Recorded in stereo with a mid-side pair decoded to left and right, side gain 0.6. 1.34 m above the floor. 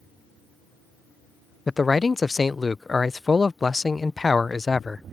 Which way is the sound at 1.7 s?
20° left.